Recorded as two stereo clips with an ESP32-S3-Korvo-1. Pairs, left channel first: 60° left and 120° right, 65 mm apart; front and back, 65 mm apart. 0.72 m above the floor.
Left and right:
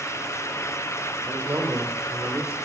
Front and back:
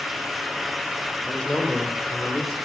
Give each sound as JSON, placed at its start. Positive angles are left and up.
{"t": 1.3, "sound": "a man speaking", "azimuth_deg": -75, "distance_m": 3.0}